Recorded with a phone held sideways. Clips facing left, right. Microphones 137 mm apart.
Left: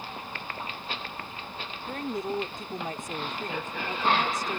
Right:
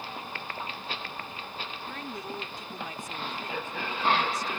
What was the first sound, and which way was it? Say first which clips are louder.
A woman speaking: left 10 dB; 45° left (ahead or behind).